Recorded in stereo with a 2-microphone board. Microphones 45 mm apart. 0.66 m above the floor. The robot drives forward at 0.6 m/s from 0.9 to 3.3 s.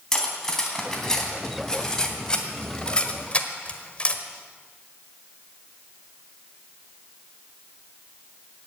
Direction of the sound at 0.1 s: 15° left (ahead or behind).